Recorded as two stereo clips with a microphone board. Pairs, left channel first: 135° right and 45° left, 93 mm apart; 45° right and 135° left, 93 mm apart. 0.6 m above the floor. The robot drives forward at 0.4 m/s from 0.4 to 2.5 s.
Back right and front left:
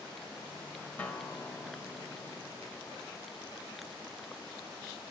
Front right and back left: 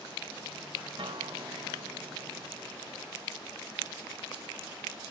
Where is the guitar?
150° left, 1.1 m; by 3.1 s 160° left, 1.7 m.